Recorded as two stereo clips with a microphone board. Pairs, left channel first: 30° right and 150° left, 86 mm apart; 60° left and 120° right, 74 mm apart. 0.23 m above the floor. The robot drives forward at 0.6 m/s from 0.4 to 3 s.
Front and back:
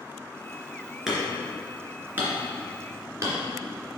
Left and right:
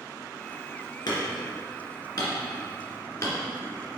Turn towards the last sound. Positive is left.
turn(degrees=100)